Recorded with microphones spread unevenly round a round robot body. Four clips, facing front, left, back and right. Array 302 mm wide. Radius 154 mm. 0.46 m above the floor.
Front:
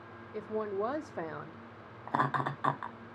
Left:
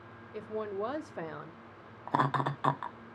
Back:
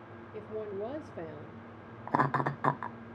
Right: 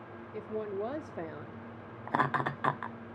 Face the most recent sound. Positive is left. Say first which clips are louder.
# left 1 dB, back 2 dB
turn(degrees=170)